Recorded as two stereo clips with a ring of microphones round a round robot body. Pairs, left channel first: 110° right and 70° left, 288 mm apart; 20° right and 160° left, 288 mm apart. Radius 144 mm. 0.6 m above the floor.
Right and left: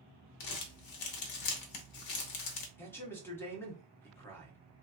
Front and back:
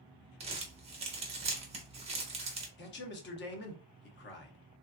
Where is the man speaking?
35° right, 0.9 m.